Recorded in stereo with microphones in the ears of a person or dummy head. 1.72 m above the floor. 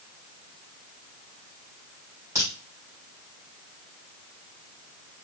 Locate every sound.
2.4 s a crack: 15° right (ahead or behind), 2.5 m